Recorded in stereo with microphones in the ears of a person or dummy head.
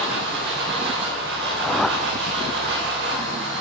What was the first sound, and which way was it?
A machine running, 60° right (ahead or behind).